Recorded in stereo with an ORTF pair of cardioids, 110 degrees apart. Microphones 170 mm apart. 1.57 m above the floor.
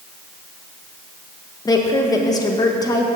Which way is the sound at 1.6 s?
20° left.